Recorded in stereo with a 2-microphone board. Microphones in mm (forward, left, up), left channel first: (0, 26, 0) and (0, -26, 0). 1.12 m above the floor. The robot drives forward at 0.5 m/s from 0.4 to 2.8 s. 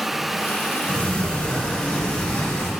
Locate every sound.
0.9 s a sliding door: 20° left (ahead or behind), 2 m; by 2.7 s 15° left (ahead or behind), 3 m